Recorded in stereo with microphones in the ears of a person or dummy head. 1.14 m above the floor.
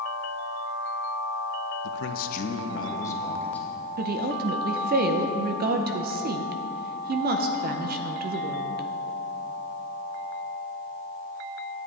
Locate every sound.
1.8 s a man speaking: 60° left (ahead or behind), 0.7 m; by 3.9 s 5° right (ahead or behind), 1.5 m
4.0 s a woman speaking: 40° right (ahead or behind), 0.7 m